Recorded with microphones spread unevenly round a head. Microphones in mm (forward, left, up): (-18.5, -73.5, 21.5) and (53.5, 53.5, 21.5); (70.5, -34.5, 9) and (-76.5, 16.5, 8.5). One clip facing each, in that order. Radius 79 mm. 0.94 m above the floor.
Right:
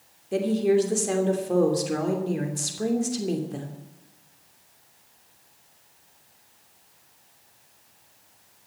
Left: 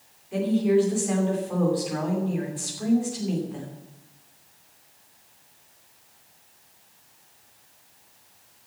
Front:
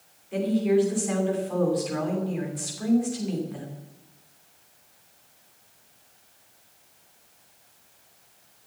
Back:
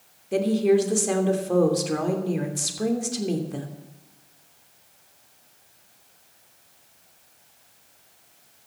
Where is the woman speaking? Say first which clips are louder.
Even, back 3 dB; 165° right, 3 m.